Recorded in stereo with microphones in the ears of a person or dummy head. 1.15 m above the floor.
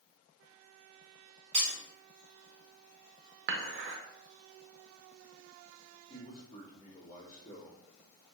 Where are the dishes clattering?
55° right (ahead or behind), 0.8 m.